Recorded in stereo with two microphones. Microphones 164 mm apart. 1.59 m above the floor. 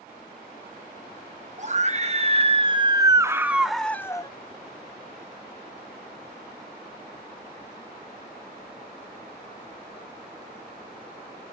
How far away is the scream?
About 1.6 m.